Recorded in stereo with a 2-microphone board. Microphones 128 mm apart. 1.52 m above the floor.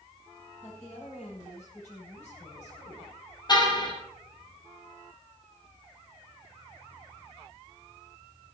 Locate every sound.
0.6 s a woman speaking: 60° left (ahead or behind), 9 m
3.5 s a car horn: 35° left (ahead or behind), 5 m